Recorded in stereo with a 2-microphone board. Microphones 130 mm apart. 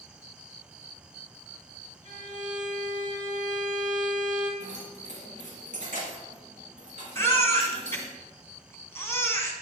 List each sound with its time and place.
2.0 s a violin: 70° right (ahead or behind), 3 m
4.6 s keys jangling: 80° right, 4 m
7.2 s a baby crying: 20° left (ahead or behind), 1.1 m